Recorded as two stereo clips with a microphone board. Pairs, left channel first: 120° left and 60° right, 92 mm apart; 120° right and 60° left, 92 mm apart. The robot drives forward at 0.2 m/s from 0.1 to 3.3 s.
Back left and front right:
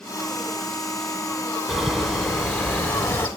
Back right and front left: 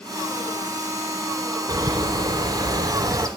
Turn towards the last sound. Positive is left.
turn(degrees=70)